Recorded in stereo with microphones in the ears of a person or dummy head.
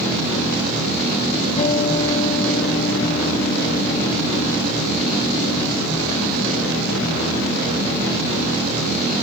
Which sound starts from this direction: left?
A guitar, at 1.6 s.